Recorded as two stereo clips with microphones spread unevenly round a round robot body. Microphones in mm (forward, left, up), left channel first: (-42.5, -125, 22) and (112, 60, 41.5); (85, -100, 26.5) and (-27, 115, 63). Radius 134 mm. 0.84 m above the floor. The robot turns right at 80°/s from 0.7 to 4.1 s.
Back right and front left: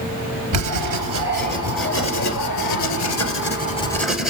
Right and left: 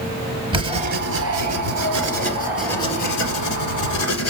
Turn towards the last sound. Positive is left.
turn(degrees=-35)